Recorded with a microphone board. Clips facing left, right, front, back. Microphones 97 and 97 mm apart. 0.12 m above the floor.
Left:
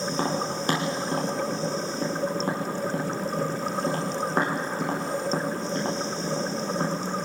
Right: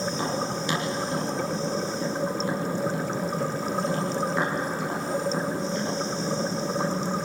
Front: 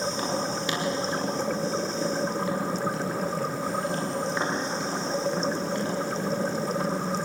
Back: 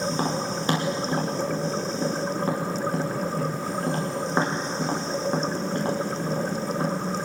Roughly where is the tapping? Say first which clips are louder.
Left 1 dB, back 2 dB; behind left.